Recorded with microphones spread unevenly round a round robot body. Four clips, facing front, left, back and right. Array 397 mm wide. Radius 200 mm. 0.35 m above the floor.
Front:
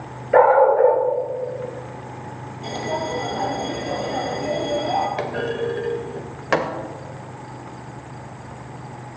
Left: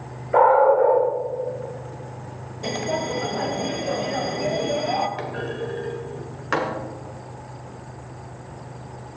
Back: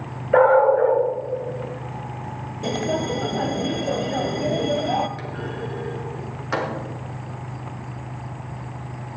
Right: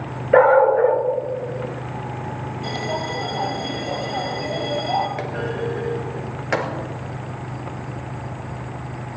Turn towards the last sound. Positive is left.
turn(degrees=-20)